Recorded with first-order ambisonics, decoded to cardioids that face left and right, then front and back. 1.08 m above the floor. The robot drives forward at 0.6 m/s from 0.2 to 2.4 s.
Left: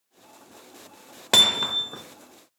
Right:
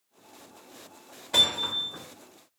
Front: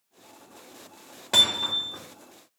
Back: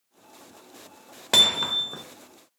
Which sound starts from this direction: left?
Hammering, at 1.3 s.